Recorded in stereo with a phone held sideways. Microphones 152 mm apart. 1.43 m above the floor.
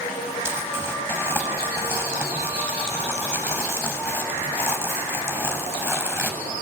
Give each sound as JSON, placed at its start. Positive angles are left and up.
{"t": 0.5, "sound": "crumpling", "side_deg": -15, "distance_m": 6.5}